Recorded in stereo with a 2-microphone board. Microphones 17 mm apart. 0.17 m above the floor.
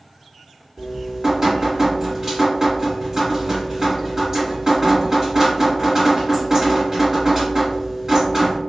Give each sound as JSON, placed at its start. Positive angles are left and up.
{"t": 0.8, "sound": "dripping", "side_deg": -30, "distance_m": 1.9}